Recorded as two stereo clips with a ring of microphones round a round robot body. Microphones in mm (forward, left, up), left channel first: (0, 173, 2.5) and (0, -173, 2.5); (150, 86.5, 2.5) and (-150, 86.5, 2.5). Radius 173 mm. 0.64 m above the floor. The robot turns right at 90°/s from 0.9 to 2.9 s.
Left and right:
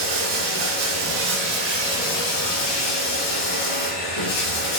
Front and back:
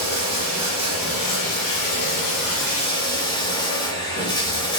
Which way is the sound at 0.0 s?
105° right.